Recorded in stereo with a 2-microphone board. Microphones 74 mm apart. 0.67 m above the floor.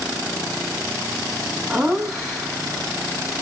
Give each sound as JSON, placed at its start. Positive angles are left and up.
{"t": 1.7, "sound": "laughter", "side_deg": -5, "distance_m": 6.5}